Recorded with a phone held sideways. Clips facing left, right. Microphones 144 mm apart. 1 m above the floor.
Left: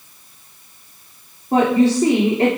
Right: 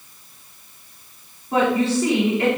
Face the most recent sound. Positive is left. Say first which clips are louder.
# left 4 dB
turn(degrees=40)  # may be behind; listen again after turning